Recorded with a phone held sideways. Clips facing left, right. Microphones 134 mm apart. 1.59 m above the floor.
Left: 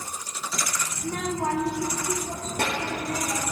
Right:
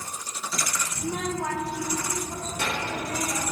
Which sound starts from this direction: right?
A child speaking, at 1.0 s.